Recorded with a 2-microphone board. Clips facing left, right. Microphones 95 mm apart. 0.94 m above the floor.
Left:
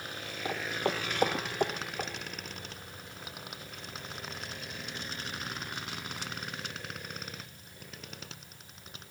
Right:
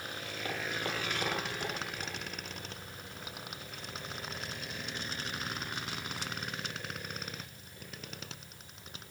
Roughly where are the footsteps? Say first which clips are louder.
Left 5 dB; centre.